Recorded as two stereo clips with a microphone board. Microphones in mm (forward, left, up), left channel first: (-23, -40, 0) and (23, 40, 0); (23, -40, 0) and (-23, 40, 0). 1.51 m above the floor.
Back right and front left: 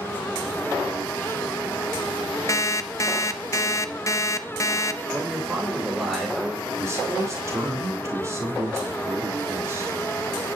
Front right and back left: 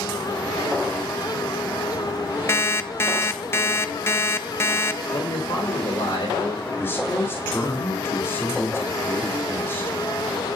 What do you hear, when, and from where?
2.5 s an alarm clock: 100° right, 0.7 m
5.1 s a man speaking: 30° right, 6 m
6.8 s a man speaking: 5° left, 3.5 m